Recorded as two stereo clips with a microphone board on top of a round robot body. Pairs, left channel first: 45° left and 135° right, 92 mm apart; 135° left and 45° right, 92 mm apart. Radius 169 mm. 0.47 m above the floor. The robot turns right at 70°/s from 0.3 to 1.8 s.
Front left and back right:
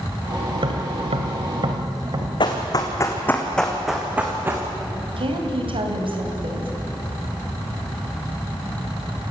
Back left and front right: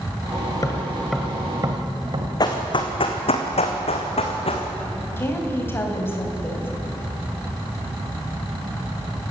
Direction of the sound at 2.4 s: 85° left.